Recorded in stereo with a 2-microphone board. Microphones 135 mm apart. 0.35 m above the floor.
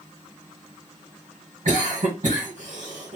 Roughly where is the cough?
Right.